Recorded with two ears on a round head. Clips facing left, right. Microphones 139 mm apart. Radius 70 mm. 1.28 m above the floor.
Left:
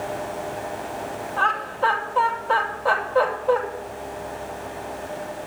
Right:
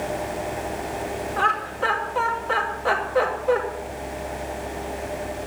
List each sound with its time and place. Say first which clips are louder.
1.4 s laughter: left 3 dB; 60° right (ahead or behind), 5.5 m